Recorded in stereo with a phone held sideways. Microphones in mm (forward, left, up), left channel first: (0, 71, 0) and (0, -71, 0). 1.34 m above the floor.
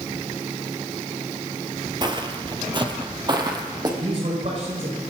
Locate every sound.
2.0 s footsteps: 30° right (ahead or behind), 1.5 m
4.0 s a man speaking: 55° right (ahead or behind), 6.5 m